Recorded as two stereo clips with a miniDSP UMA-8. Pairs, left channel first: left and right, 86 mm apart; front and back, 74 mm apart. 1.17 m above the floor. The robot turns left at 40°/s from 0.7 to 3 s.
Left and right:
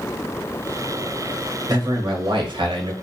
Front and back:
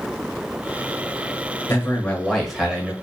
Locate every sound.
1.7 s a man speaking: 55° right, 0.9 m; by 2.9 s 105° right, 0.9 m